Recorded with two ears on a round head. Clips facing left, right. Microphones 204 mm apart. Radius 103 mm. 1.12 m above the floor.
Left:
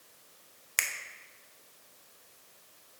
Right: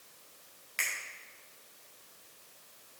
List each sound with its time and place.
0.8 s a finger snap: 70° left (ahead or behind), 0.8 m